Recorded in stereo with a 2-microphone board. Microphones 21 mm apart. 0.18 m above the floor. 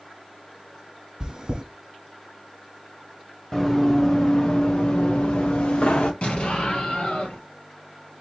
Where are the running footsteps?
15° left (ahead or behind), 1.4 m; by 6.1 s 80° left, 1.6 m.